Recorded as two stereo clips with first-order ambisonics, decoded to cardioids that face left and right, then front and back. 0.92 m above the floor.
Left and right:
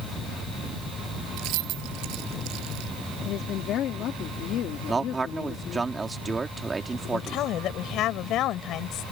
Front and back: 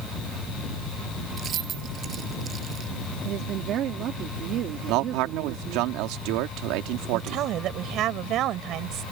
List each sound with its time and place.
1.4 s keys jangling: 120° right; by 2.9 s 115° right
3.2 s a woman speaking: 135° left
4.9 s a man speaking: 165° right
7.1 s a woman speaking: 135° left